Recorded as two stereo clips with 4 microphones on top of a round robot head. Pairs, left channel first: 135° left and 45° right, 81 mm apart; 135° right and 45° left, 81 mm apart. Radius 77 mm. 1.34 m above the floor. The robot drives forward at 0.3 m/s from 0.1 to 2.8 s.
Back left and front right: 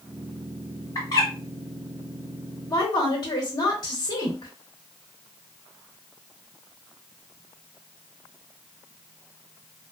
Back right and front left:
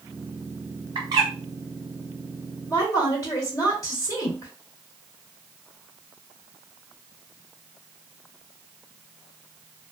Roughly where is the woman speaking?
Behind.